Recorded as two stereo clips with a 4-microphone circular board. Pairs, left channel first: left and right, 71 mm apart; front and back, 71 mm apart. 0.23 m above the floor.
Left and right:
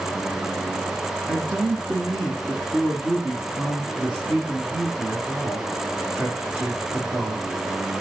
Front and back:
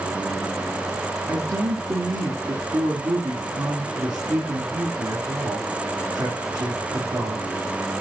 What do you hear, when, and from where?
1.3 s a man speaking: 165° right, 3 m